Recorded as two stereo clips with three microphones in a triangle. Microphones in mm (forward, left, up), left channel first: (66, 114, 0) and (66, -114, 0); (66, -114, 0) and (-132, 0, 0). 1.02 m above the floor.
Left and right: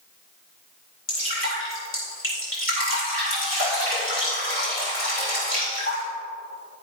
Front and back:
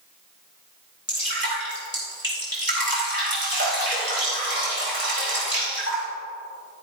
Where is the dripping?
115° left, 4 m.